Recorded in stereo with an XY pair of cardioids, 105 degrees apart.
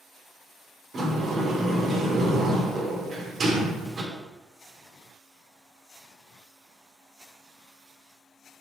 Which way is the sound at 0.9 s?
35° right.